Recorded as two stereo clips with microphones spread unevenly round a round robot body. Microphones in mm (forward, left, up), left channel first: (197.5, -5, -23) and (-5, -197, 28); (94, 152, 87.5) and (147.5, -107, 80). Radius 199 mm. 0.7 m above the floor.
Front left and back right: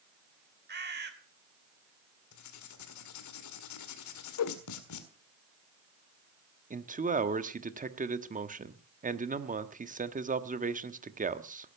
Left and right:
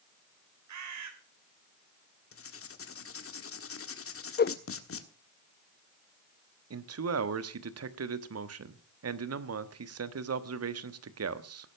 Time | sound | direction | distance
0.7 | a bird | 80° right | 3 m
2.3 | writing | 65° left | 1.7 m
4.4 | a whoosh | 45° left | 0.6 m
6.7 | a man speaking | 70° right | 1.4 m